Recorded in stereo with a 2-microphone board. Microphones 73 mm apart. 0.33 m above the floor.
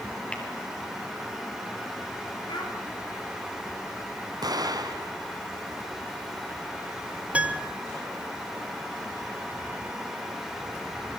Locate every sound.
0.3 s tapping: 15° left (ahead or behind), 6 m
2.5 s a child speaking: 85° left, 6.5 m
4.4 s an explosion: 60° right (ahead or behind), 3.5 m
7.3 s a piano: 15° right (ahead or behind), 2 m